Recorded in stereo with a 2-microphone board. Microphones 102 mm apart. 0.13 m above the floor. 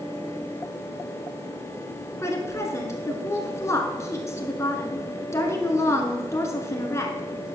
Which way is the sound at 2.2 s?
30° left (ahead or behind).